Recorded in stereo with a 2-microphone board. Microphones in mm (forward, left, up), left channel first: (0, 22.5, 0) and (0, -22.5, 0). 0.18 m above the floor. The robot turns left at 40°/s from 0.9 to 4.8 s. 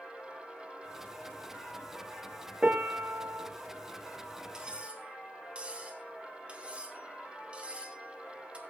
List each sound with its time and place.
2.6 s a piano: 35° right, 1.8 m; by 3.5 s 70° right, 1.8 m
4.5 s cutlery clinking: 15° right (ahead or behind), 2.5 m; by 8.6 s 25° right (ahead or behind), 2.5 m